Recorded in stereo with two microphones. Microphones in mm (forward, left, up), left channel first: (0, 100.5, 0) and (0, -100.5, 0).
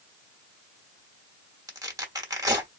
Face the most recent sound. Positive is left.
turn(degrees=-20)  # may be behind; listen again after turning